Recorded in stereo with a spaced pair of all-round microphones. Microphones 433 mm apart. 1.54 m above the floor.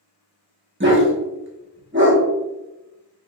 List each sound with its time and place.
0.8 s a dog barking: 25° right (ahead or behind), 1.1 m